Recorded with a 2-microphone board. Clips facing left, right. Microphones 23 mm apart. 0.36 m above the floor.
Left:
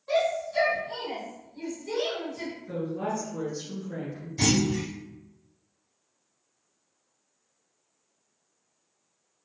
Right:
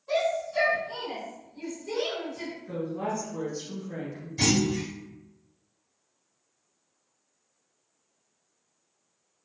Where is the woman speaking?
35° right (ahead or behind), 1.1 m.